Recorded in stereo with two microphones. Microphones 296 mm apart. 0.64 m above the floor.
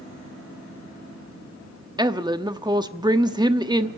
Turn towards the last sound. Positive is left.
turn(degrees=-15)  # may be behind; listen again after turning